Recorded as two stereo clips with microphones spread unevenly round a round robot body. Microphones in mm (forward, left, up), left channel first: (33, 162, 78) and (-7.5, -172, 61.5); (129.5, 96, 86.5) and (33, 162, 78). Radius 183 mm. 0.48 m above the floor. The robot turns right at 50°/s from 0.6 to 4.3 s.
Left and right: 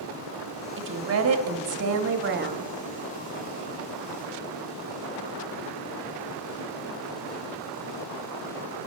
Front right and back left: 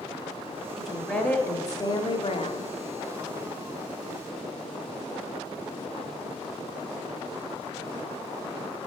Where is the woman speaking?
135° right, 1.0 m; by 2.6 s 40° right, 1.0 m.